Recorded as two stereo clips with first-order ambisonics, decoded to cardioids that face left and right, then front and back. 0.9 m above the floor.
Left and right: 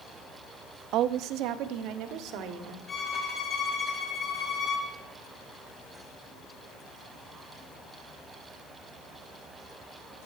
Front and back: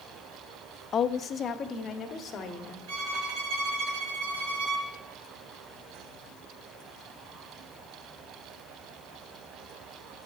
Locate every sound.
0.9 s a woman speaking: 60° right, 0.5 m
2.9 s a violin: 160° left, 3 m